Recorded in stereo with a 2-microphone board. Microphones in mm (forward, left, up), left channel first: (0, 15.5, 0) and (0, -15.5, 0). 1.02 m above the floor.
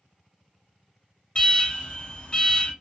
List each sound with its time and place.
1.4 s an alarm: 35° left (ahead or behind), 0.8 m